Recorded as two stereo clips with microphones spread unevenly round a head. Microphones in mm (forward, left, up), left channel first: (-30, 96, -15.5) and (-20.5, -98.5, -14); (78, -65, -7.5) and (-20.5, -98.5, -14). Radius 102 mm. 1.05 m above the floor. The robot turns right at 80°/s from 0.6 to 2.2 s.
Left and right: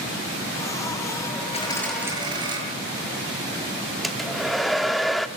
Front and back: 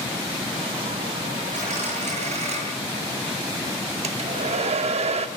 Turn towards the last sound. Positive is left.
turn(degrees=-175)